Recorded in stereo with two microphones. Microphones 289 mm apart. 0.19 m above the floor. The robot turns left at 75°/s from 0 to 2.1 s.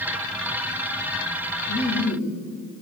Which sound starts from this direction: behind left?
Laughter, at 1.7 s.